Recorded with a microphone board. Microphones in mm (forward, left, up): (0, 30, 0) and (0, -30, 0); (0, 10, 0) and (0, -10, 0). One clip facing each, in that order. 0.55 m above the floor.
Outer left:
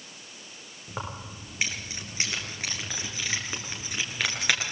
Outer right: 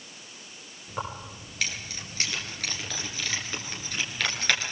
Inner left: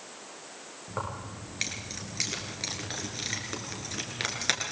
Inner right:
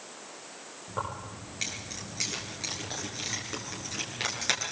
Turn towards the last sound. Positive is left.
turn(degrees=10)  # may be behind; listen again after turning